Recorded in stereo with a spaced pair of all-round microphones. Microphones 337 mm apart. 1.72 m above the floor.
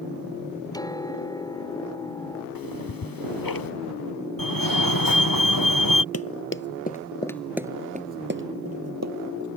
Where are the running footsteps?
45° left (ahead or behind); by 9.6 s 60° right (ahead or behind).